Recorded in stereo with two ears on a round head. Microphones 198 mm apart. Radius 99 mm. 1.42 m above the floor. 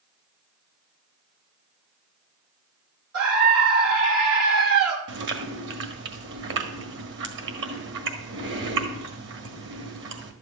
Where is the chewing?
50° right (ahead or behind), 1.7 m.